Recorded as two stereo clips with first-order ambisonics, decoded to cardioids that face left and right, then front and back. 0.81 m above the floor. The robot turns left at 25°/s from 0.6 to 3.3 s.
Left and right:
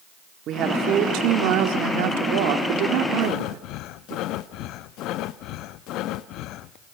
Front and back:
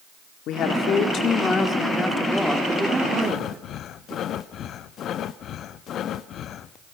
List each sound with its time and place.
0.5 s a woman speaking: 45° right, 1.6 m; by 4.2 s 110° right, 1.6 m
3.2 s breathing: 55° left, 0.5 m